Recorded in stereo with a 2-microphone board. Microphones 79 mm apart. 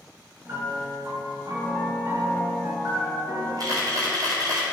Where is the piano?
35° right (ahead or behind), 2.5 m.